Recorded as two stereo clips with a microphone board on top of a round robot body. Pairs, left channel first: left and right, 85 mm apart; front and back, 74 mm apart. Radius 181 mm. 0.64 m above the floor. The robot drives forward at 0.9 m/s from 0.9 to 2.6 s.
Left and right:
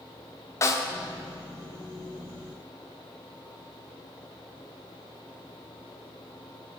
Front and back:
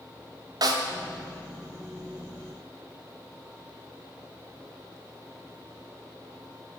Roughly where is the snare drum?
Behind left.